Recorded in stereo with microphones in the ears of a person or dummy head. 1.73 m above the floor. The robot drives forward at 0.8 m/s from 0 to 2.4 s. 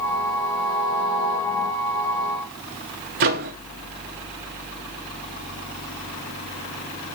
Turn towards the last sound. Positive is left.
turn(degrees=-40)  # may be behind; listen again after turning